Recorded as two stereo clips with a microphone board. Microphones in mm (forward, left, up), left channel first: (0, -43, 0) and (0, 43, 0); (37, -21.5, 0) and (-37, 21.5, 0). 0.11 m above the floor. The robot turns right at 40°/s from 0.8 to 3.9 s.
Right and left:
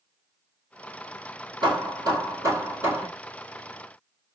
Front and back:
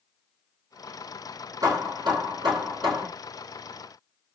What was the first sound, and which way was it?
Hammering, 105° left.